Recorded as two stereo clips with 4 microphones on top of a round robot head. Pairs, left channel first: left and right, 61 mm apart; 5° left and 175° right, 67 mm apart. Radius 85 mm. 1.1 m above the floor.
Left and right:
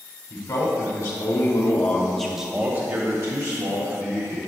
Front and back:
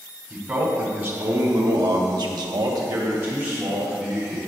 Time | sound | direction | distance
0.3 | a man speaking | 125° left | 2.5 m